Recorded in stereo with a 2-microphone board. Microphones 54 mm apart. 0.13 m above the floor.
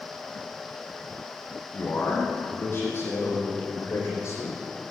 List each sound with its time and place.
1.7 s a man speaking: 40° left (ahead or behind), 5.5 m; by 4.6 s 55° left (ahead or behind), 6.5 m